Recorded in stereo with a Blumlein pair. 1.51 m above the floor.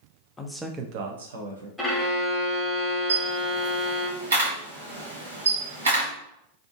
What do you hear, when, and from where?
0.4 s a man speaking: 15° left, 0.6 m; by 1.7 s 80° right, 1.1 m
1.8 s a violin: straight ahead, 1.0 m
3.1 s a camera shutter: 65° right, 1.6 m